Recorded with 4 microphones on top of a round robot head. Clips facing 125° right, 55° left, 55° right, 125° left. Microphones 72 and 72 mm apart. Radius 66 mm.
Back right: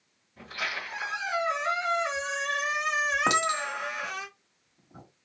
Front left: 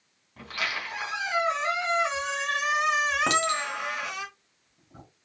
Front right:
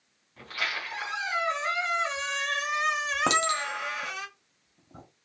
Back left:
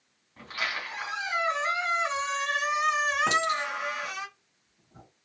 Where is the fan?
I don't hear a fan.